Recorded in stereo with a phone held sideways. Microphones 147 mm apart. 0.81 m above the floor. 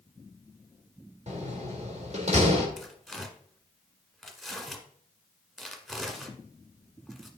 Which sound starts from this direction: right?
A door slam, at 1.3 s.